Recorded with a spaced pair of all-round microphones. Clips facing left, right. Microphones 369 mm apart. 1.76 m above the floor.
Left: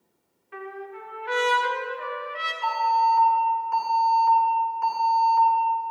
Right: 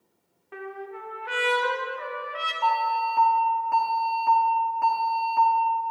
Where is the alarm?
65° right (ahead or behind), 1.5 m.